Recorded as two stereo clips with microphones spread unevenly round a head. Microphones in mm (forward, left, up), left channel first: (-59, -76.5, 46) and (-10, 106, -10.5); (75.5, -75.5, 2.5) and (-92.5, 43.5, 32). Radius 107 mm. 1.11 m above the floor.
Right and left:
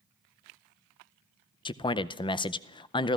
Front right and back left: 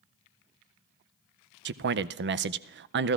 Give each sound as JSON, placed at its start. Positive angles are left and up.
{"t": 1.6, "sound": "a man speaking", "azimuth_deg": 180, "distance_m": 0.5}